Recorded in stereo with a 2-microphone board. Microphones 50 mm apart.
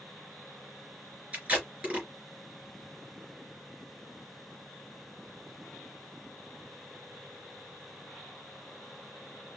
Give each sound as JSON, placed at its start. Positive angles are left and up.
{"t": 1.3, "sound": "tape being pulled", "side_deg": -25, "distance_m": 3.0}